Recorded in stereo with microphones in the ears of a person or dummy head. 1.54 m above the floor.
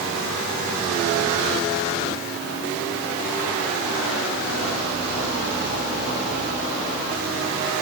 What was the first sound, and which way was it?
Only background noise.